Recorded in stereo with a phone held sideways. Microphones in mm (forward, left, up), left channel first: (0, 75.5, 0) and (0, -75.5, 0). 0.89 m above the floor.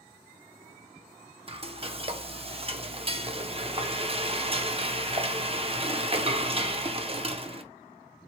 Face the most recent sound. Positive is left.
turn(degrees=-35)  # may be behind; listen again after turning